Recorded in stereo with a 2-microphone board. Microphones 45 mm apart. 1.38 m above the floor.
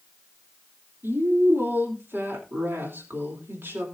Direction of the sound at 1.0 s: 55° right (ahead or behind).